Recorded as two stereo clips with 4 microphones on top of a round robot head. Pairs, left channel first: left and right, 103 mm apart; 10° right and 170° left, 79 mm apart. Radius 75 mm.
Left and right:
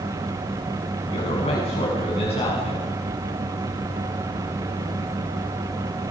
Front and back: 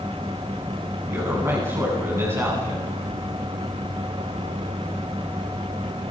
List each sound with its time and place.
1.1 s a man speaking: 115° left, 9 m